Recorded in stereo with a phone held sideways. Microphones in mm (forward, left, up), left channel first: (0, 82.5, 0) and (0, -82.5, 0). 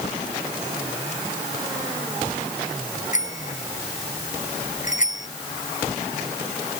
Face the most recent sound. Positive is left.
turn(degrees=50)  # may be behind; listen again after turning